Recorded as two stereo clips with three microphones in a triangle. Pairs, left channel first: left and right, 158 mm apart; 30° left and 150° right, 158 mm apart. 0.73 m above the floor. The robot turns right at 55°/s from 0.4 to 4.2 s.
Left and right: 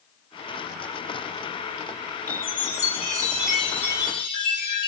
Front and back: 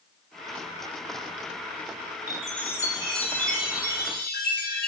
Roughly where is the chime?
Right.